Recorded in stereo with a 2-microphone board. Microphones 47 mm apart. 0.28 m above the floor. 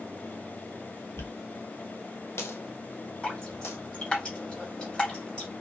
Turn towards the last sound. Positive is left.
turn(degrees=20)  # may be behind; listen again after turning